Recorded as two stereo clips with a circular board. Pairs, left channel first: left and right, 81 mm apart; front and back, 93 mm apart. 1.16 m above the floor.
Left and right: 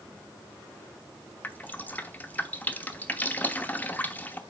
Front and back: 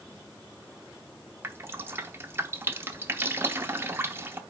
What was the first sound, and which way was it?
Dripping, 140° left.